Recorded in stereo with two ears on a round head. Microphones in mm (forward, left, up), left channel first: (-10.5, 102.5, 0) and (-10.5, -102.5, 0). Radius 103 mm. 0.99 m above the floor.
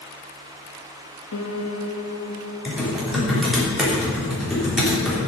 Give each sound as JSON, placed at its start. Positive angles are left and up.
{"t": 1.3, "sound": "a piano", "side_deg": 70, "distance_m": 1.5}
{"t": 2.6, "sound": "typing on a keyboard", "side_deg": 0, "distance_m": 3.5}